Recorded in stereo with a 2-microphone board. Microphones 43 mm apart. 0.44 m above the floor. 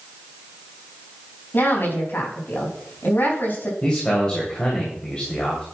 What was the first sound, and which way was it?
A woman speaking, 50° left (ahead or behind).